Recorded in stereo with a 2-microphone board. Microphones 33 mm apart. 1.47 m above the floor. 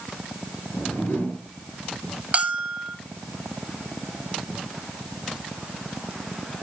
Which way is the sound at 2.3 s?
40° right (ahead or behind).